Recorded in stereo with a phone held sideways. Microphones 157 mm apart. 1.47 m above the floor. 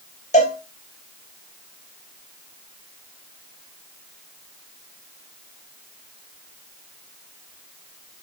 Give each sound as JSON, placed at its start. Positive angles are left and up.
{"t": 0.3, "sound": "a cowbell", "side_deg": 45, "distance_m": 2.5}